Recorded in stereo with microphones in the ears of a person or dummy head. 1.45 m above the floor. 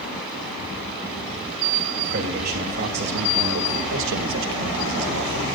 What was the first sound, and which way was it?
A man speaking, 50° right (ahead or behind).